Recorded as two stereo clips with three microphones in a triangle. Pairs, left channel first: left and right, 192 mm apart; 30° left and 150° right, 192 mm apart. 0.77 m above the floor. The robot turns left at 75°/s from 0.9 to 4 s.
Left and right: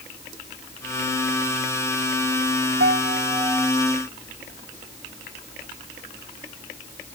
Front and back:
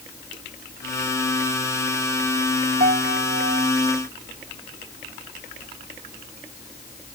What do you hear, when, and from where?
2.8 s a piano: 105° right; by 3.7 s 175° right